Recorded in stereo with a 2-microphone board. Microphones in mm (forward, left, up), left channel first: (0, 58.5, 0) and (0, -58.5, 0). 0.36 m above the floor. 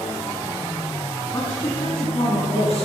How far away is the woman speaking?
About 3 m.